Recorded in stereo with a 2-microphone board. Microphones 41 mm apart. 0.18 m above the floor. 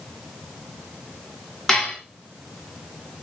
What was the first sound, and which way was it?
Dishes clattering, 10° left (ahead or behind).